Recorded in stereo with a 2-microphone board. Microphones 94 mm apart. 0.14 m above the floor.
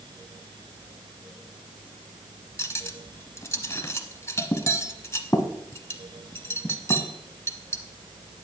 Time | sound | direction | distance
2.6 | cutlery clinking | 30° left (ahead or behind) | 1.0 m